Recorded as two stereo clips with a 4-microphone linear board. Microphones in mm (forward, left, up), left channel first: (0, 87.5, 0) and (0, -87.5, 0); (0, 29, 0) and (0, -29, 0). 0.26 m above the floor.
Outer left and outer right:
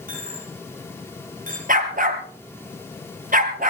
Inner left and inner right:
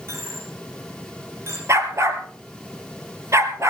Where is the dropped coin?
50° right (ahead or behind), 9 m.